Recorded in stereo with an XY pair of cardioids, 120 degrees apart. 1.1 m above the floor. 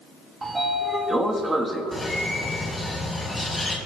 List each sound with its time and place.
0.4 s a sliding door: 20° right, 1.1 m
1.9 s a bird: 15° left, 2.5 m